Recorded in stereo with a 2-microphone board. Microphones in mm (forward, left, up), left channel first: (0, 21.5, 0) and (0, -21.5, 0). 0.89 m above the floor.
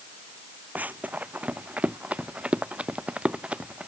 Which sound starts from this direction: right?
Running footsteps, at 0.8 s.